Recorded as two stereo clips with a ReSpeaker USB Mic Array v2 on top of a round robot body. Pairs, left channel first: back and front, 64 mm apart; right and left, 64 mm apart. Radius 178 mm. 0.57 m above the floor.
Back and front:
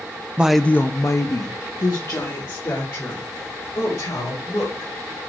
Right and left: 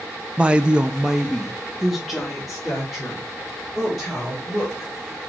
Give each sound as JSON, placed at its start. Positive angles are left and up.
{"t": 0.4, "sound": "a woman speaking", "azimuth_deg": 45, "distance_m": 0.6}